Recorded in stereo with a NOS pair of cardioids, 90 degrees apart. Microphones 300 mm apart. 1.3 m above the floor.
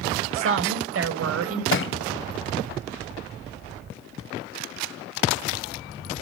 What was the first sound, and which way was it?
A woman speaking, 45° right.